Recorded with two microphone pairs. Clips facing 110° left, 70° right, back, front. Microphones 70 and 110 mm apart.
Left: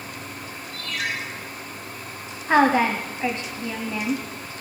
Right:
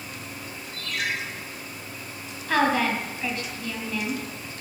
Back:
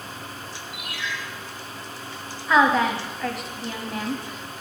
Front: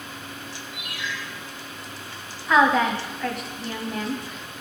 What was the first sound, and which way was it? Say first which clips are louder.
A ringtone: left 1 dB, back 1 dB; 155° right.